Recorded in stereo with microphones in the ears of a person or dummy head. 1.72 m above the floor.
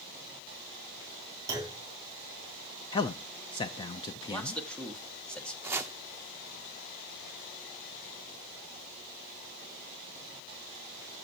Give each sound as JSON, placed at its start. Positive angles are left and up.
{"t": 1.5, "sound": "a clunk", "side_deg": -20, "distance_m": 3.5}
{"t": 2.9, "sound": "a man speaking", "side_deg": 25, "distance_m": 0.7}
{"t": 4.3, "sound": "a man speaking", "side_deg": 10, "distance_m": 1.8}
{"t": 5.6, "sound": "chopping", "side_deg": -10, "distance_m": 0.7}